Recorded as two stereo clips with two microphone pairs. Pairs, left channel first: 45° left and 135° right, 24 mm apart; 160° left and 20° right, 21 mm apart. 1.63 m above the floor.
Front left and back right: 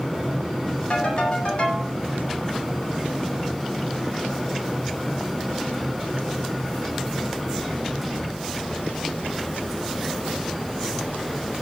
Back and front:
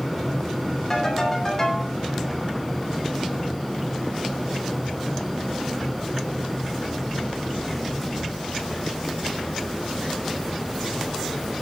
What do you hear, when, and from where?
0.9 s a ringtone: 85° left, 8 m